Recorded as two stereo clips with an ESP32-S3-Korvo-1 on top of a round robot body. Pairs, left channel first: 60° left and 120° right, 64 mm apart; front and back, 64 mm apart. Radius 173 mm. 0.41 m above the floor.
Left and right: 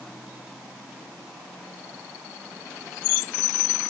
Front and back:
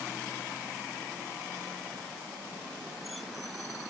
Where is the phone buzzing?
I don't hear a phone buzzing.